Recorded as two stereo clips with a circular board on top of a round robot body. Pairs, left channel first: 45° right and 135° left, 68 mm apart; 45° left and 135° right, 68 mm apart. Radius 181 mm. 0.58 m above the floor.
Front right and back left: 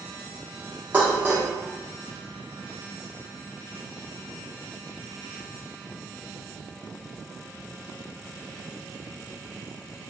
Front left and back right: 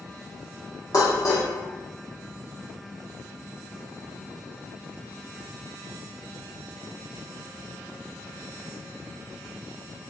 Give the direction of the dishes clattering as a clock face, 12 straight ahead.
10 o'clock.